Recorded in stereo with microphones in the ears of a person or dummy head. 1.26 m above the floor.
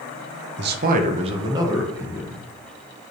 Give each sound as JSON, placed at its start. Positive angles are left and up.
{"t": 0.6, "sound": "a man speaking", "side_deg": -55, "distance_m": 0.9}